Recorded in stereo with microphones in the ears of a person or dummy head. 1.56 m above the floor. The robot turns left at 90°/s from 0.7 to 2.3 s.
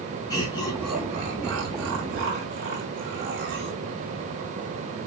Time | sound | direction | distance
0.3 | laughter | 15° left (ahead or behind) | 3.5 m